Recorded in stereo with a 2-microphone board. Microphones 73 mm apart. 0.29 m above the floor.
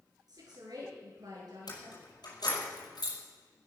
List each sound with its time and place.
0.3 s a woman speaking: 65° right (ahead or behind), 5.5 m
1.7 s keys jangling: 65° left (ahead or behind), 5.5 m